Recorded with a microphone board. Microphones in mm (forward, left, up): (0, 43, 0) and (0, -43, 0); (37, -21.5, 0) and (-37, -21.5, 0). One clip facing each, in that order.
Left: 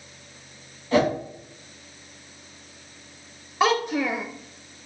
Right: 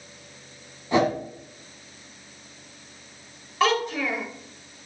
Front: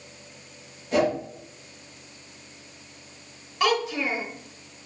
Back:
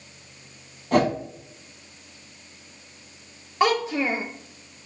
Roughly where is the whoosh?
Behind.